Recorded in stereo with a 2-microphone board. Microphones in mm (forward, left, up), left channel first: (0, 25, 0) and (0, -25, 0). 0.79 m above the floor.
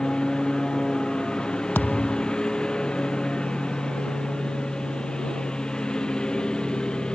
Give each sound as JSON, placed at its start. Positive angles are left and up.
{"t": 0.0, "sound": "a lawn mower", "side_deg": 15}
{"t": 1.8, "sound": "a thud", "side_deg": 40}